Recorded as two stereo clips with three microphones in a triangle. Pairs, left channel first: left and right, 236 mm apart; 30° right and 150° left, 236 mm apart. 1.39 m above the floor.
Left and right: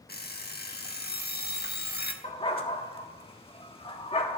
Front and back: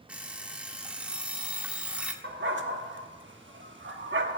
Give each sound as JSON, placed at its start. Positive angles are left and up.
{"t": 0.1, "sound": "an alarm clock", "azimuth_deg": 65, "distance_m": 1.2}
{"t": 2.2, "sound": "a dog barking", "azimuth_deg": 150, "distance_m": 1.2}